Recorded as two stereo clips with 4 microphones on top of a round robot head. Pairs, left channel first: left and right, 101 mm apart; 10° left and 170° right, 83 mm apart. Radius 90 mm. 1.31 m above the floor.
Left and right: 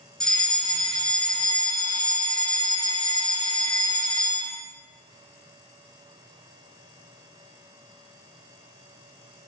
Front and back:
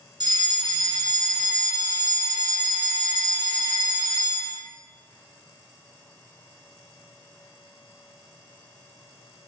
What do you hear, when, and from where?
0.2 s a fire alarm: 175° left, 2.5 m